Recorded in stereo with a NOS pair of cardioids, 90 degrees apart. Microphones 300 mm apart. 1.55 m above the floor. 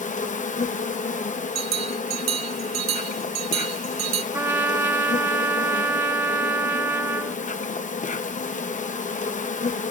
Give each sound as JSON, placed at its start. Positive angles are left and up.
{"t": 0.0, "sound": "an insect", "azimuth_deg": 25, "distance_m": 1.0}
{"t": 1.6, "sound": "a bell", "azimuth_deg": -60, "distance_m": 0.8}
{"t": 4.3, "sound": "a trumpet", "azimuth_deg": -10, "distance_m": 1.8}